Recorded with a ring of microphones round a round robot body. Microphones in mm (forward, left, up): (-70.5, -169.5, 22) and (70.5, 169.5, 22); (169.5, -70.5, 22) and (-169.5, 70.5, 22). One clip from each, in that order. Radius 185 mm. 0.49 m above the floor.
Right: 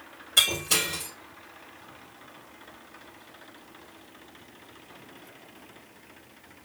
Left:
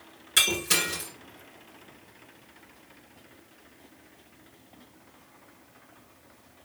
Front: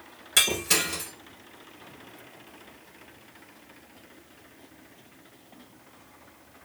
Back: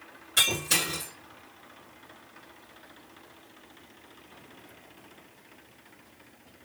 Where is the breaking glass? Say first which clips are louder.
Right 1 dB, front 2 dB; 25° left, 3 m.